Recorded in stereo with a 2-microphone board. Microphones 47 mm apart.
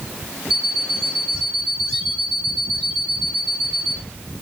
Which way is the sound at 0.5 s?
10° right (ahead or behind).